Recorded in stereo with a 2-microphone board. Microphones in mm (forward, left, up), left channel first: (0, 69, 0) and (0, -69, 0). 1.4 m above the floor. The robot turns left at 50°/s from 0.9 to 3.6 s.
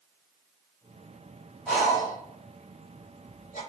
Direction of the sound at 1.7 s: Centre (ahead or behind).